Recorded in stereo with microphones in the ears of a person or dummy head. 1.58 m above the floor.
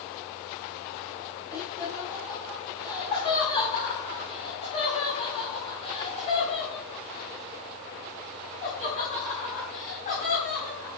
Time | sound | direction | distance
1.5 | laughter | 20° left (ahead or behind) | 6 m